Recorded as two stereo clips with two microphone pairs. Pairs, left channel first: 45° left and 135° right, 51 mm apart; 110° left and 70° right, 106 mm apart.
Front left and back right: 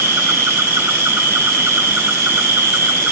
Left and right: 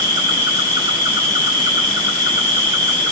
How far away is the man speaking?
No man speaking in this recording.